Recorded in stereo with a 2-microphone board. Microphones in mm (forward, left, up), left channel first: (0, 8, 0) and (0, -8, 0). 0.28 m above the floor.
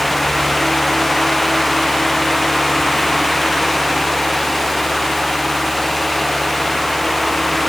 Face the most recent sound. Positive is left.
No sound to turn to.